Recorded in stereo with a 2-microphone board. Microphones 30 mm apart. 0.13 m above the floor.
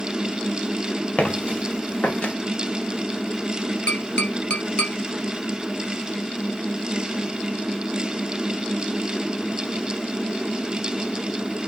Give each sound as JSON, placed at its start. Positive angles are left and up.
{"t": 1.2, "sound": "footsteps", "side_deg": 40, "distance_m": 3.5}
{"t": 3.9, "sound": "tapping", "side_deg": 40, "distance_m": 2.0}